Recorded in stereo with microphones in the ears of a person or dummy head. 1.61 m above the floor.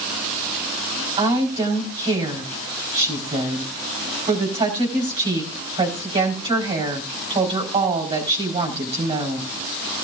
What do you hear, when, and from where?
1.2 s a woman speaking: 25° right (ahead or behind), 4.5 m